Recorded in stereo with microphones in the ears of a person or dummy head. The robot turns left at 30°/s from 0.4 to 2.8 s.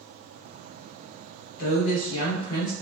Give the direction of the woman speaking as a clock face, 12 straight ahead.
10 o'clock.